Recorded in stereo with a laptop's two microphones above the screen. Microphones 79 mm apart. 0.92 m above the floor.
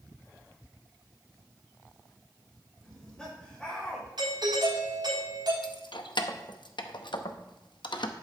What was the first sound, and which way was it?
Laughter, 10° left (ahead or behind).